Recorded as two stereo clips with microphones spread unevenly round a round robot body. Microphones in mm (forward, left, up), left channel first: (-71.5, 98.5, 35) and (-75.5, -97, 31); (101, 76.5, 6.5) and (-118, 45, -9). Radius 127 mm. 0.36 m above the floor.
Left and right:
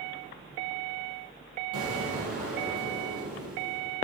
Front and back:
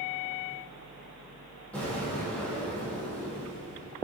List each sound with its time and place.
1.7 s an explosion: 75° right, 3.5 m